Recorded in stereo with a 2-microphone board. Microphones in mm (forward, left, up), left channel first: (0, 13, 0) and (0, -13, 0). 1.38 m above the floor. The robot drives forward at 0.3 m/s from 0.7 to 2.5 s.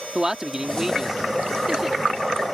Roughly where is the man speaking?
Right.